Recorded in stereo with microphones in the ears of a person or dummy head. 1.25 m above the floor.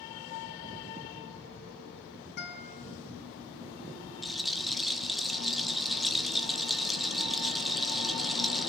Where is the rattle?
5° left (ahead or behind), 0.6 m.